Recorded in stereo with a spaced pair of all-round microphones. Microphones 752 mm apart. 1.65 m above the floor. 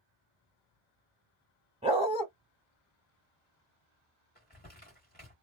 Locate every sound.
1.8 s a dog barking: 10° right (ahead or behind), 1.1 m
4.3 s crumpling: 10° left (ahead or behind), 1.7 m